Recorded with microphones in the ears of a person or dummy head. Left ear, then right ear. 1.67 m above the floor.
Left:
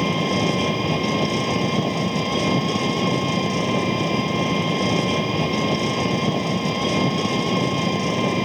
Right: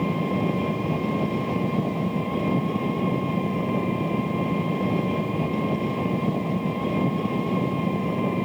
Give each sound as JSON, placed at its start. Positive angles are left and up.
{"t": 0.0, "sound": "an engine running", "side_deg": 80}